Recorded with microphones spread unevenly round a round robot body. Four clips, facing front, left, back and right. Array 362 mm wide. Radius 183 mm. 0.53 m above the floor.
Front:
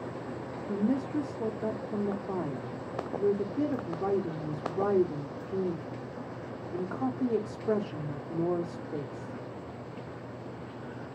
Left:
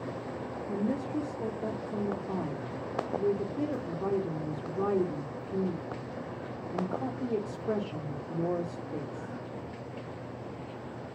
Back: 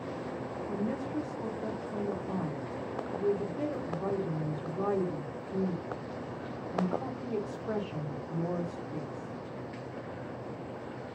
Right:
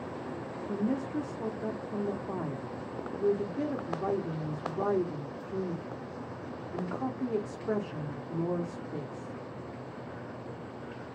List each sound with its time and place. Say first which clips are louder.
0.7 s a woman speaking: even, front 6 dB; 20° right, 0.8 m